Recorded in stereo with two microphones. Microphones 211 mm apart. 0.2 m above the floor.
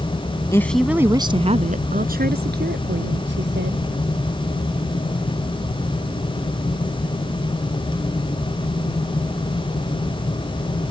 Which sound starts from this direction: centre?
A woman speaking, at 0.5 s.